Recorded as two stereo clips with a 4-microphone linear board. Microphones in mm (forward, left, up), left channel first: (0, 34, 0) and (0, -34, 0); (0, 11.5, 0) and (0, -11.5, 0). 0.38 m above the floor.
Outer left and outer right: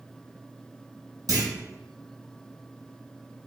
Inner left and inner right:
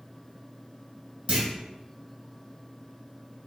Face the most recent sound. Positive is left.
turn(degrees=-65)  # may be behind; listen again after turning